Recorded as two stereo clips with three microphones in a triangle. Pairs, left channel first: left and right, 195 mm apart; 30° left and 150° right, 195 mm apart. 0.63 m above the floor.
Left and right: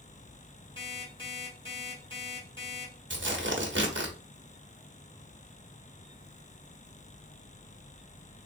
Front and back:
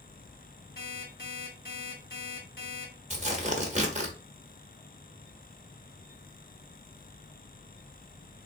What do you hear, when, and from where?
0.8 s an alarm clock: 30° left, 2.0 m
3.1 s tearing paper: 95° right, 1.0 m